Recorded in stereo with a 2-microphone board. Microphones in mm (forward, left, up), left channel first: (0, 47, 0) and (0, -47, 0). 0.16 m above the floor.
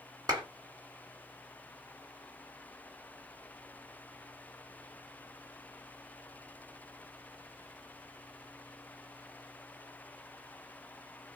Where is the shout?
No shout in this recording.